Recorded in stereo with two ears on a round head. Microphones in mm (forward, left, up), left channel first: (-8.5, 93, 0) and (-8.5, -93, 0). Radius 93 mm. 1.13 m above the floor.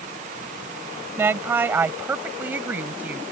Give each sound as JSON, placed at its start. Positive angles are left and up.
{"t": 1.2, "sound": "a woman speaking", "side_deg": -10}